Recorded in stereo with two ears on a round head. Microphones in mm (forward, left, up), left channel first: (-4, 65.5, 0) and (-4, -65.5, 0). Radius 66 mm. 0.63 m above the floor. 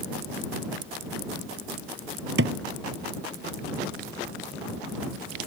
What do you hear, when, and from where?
2.4 s a thud: 85° right